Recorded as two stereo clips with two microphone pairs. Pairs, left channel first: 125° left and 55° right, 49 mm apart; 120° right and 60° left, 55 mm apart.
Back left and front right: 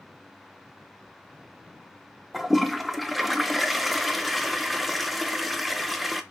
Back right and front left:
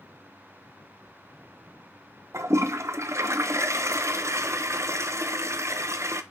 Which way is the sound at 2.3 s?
35° left.